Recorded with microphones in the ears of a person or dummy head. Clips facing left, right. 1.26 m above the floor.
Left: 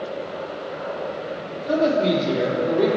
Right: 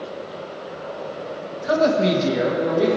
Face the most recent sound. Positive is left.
turn(degrees=-85)